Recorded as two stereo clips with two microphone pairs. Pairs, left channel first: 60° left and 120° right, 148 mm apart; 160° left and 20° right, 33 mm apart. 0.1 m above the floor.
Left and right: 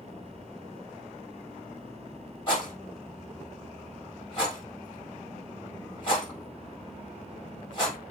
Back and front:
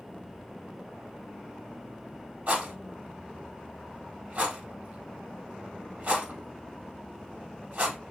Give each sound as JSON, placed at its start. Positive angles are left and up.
{"t": 2.5, "sound": "a rattle", "azimuth_deg": 15, "distance_m": 3.5}